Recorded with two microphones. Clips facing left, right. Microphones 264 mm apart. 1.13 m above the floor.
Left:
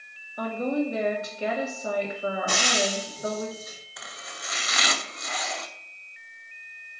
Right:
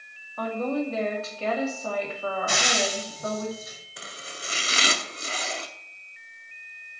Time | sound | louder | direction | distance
0.4 | a woman speaking | left 1 dB | 15° left (ahead or behind) | 2.5 m
2.5 | frying | even | 55° left (ahead or behind) | 3 m
4.0 | chopping | right 6 dB | 30° right (ahead or behind) | 0.8 m